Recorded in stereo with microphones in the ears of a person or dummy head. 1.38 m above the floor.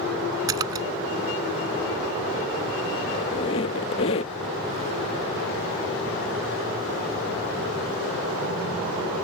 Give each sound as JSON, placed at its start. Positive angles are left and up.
{"t": 0.5, "sound": "a splash", "side_deg": -25}
{"t": 3.1, "sound": "a squeak", "side_deg": 25}